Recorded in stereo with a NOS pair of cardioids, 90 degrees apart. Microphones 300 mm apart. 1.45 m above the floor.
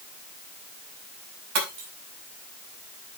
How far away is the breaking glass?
About 5.5 m.